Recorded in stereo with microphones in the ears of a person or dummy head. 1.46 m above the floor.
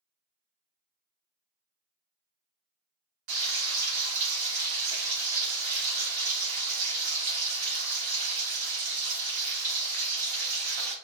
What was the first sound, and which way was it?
Frying, 40° right (ahead or behind).